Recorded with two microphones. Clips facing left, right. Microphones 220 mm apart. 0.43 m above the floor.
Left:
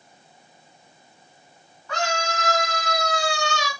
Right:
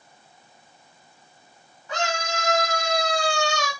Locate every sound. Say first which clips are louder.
1.9 s a scream: left 1 dB; 20° right (ahead or behind), 4 m; by 3.7 s 50° right (ahead or behind), 2 m